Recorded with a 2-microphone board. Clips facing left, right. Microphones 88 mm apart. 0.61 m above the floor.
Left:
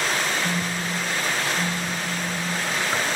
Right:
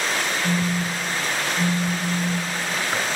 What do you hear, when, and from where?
0.4 s a phone buzzing: 30° right (ahead or behind), 0.6 m